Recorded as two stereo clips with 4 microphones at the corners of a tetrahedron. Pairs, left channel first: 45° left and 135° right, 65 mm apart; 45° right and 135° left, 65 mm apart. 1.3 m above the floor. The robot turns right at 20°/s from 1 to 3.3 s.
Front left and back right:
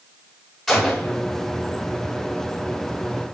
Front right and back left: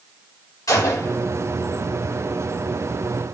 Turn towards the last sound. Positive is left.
turn(degrees=5)